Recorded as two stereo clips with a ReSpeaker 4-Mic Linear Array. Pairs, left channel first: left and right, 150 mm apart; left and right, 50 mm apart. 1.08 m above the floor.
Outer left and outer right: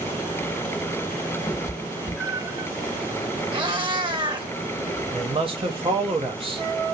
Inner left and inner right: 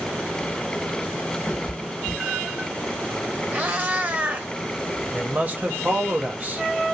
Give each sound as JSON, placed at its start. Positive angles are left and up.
{"t": 1.5, "sound": "a cat meowing", "side_deg": 30, "distance_m": 0.8}
{"t": 3.5, "sound": "a cat meowing", "side_deg": -30, "distance_m": 0.8}
{"t": 5.1, "sound": "a man speaking", "side_deg": -35, "distance_m": 1.0}